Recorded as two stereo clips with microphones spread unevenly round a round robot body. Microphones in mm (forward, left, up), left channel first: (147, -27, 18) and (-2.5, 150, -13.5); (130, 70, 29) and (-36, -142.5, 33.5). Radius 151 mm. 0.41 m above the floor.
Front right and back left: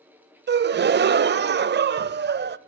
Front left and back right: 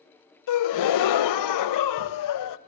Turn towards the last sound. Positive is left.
turn(degrees=80)